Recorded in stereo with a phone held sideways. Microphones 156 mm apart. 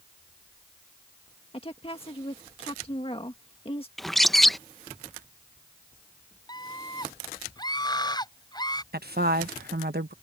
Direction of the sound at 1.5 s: 35° left (ahead or behind).